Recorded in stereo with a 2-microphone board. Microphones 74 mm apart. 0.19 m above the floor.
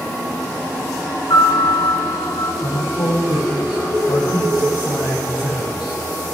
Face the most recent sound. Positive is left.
turn(degrees=80)